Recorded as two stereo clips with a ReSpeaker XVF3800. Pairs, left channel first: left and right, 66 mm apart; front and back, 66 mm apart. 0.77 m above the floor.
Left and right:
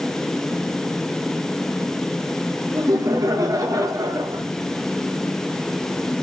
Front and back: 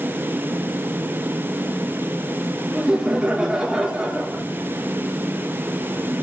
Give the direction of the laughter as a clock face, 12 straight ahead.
3 o'clock.